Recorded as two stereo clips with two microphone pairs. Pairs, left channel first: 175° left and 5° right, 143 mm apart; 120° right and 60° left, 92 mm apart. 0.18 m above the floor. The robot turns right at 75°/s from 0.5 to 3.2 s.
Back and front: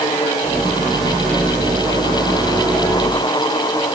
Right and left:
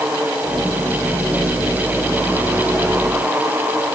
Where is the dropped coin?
No dropped coin in this recording.